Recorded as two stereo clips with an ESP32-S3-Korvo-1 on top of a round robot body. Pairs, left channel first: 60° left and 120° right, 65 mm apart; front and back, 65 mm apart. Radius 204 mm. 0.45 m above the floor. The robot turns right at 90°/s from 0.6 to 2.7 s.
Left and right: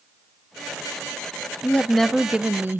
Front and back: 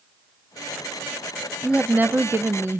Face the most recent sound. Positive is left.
turn(degrees=-155)